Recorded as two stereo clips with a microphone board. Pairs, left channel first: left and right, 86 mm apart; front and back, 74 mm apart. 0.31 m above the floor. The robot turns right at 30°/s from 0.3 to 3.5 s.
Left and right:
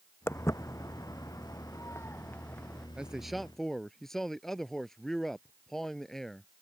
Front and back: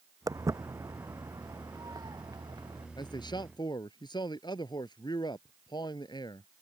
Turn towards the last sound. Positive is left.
turn(degrees=5)